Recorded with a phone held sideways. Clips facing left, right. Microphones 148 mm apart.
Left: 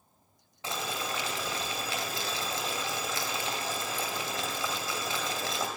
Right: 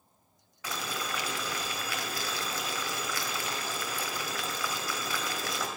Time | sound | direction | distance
0.6 | boiling | 25° left (ahead or behind) | 1.9 m